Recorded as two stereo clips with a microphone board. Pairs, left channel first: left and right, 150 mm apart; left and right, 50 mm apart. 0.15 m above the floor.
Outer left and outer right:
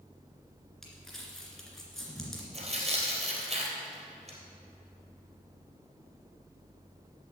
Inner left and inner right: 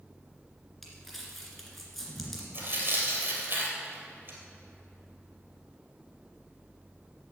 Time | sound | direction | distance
0.8 | crumpling | 5° left (ahead or behind) | 2 m
2.5 | tearing paper | 45° right (ahead or behind) | 3 m